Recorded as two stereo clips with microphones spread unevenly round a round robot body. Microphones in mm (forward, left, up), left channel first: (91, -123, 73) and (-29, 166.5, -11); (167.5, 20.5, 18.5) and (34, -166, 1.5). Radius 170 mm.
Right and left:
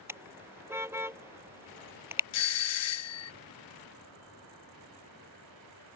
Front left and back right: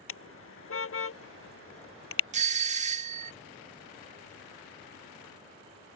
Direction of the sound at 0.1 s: 30° left.